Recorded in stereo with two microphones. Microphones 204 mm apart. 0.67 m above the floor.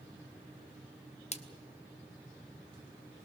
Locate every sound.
1.3 s a splash: 30° left (ahead or behind), 0.9 m